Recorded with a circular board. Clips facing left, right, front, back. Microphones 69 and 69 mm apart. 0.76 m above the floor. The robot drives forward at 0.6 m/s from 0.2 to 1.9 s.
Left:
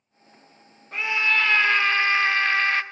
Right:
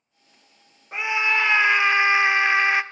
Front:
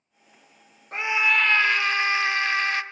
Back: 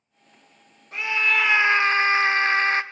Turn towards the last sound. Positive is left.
turn(degrees=-160)